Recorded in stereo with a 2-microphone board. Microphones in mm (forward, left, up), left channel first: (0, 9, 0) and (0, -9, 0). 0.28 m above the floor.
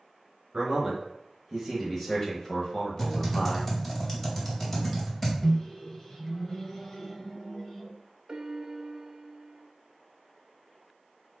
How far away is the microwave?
About 0.8 m.